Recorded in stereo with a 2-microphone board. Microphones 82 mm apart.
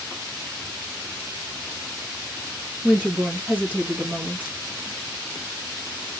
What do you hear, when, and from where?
2.8 s a woman speaking: 15° right (ahead or behind), 2 m